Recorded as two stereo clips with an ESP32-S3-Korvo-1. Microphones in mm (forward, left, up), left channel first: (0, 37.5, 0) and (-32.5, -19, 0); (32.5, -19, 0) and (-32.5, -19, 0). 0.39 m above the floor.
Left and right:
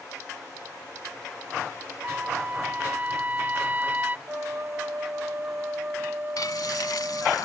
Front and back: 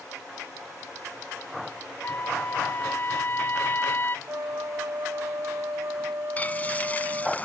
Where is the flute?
165° right.